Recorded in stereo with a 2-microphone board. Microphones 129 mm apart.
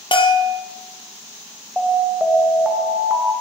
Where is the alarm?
5° right (ahead or behind), 1.6 m.